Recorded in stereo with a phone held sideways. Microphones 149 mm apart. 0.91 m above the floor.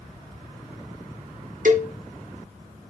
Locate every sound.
1.6 s a cowbell: 60° right (ahead or behind), 1.0 m